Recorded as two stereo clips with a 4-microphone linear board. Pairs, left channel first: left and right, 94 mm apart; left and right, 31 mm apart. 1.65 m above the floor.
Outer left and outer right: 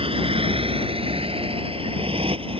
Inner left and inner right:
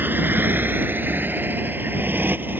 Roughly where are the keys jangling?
I don't hear keys jangling.